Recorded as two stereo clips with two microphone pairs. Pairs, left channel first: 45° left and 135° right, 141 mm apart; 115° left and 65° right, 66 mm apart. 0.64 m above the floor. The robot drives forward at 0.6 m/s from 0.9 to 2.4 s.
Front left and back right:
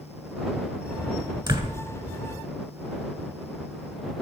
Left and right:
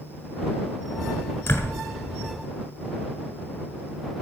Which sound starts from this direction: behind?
A door slam, at 1.5 s.